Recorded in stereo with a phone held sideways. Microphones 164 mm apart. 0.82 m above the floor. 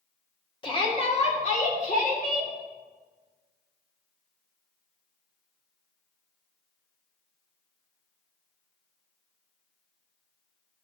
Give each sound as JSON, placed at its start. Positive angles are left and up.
{"t": 0.6, "sound": "a shout", "side_deg": 30, "distance_m": 1.9}